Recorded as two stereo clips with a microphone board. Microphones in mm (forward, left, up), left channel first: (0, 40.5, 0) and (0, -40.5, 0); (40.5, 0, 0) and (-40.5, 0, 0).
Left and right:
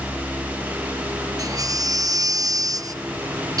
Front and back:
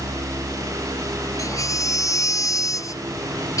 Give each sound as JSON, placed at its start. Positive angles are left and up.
{"t": 1.4, "sound": "a baby crying", "azimuth_deg": -50}